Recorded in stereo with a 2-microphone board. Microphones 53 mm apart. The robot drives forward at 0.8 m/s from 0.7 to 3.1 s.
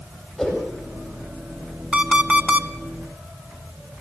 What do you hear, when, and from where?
0.4 s a whoosh: 5° left (ahead or behind), 8.5 m
1.9 s an alarm clock: 20° right (ahead or behind), 1.4 m; by 2.7 s 35° right (ahead or behind), 0.9 m